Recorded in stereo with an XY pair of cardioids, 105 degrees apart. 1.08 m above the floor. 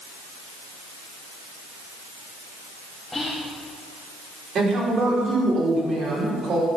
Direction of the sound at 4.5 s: 55° right.